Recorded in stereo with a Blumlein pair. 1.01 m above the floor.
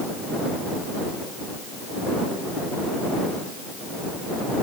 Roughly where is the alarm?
No alarm in this recording.